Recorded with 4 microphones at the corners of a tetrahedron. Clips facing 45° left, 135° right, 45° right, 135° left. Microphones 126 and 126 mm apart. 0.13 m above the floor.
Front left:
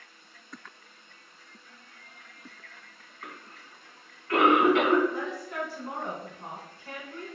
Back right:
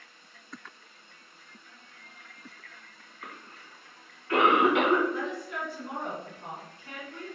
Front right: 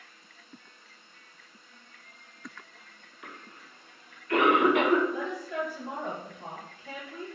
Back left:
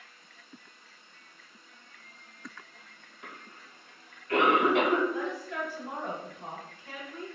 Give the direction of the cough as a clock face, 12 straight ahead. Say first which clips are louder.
Front left 1 dB, front right 1 dB; 7 o'clock.